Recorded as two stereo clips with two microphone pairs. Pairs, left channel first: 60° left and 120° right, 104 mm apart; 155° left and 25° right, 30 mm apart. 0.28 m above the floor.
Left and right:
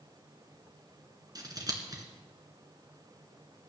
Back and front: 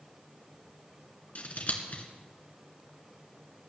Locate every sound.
1.4 s scissors: 175° right, 2 m